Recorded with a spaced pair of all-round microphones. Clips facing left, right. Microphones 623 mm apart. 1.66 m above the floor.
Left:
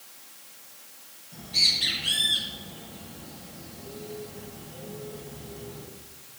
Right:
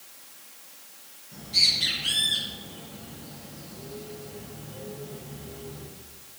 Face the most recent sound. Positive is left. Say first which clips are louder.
# even
turn(degrees=-85)